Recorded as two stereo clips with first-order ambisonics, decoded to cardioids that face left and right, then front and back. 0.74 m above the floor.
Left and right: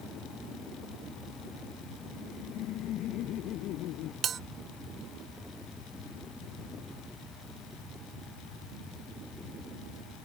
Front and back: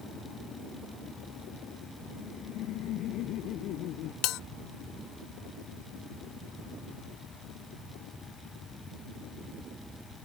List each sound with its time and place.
2.1 s laughter: 45° left; by 4.1 s 50° left
4.2 s a bell: 30° right